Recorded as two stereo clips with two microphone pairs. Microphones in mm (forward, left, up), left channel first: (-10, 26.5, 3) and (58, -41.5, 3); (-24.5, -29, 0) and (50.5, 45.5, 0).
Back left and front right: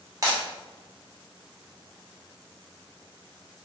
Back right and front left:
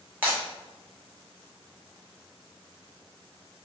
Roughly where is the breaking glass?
Ahead.